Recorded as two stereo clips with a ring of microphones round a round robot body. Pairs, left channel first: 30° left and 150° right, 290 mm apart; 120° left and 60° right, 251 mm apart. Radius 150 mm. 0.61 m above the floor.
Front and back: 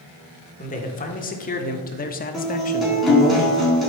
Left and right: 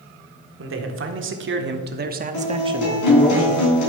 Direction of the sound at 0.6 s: 30° right.